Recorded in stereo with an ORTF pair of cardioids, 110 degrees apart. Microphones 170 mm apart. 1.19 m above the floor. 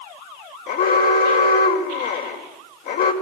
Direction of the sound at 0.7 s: 65° left.